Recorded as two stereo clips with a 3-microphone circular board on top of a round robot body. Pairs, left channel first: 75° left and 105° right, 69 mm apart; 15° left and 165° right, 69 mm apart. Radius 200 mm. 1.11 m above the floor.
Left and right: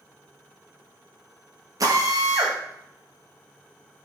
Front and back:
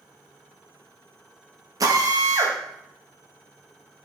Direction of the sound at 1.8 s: 135° right.